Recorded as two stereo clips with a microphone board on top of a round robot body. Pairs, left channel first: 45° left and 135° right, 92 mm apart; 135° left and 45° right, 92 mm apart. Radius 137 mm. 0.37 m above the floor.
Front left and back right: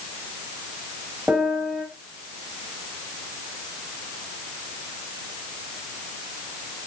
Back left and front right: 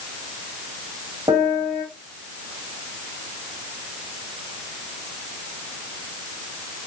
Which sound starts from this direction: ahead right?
A piano, at 1.3 s.